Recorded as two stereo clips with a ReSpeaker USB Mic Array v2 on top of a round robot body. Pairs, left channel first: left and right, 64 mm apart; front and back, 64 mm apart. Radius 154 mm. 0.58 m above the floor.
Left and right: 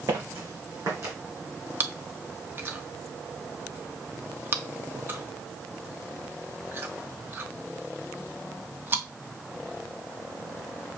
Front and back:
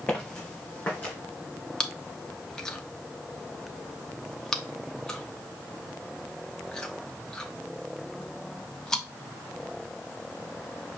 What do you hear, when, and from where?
0.1 s footsteps: 65° right, 2.5 m; by 1.1 s 60° right, 1.9 m
1.8 s chewing: 70° right, 1.0 m